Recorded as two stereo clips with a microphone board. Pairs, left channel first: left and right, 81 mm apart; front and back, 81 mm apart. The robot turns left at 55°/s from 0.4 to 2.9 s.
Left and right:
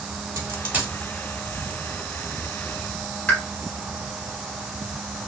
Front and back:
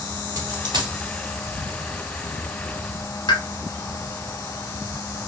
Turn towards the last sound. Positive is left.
turn(degrees=15)